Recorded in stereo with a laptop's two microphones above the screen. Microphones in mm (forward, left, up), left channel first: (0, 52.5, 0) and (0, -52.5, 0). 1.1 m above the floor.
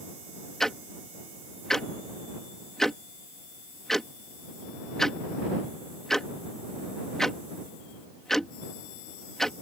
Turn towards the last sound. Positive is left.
turn(degrees=5)  # may be behind; listen again after turning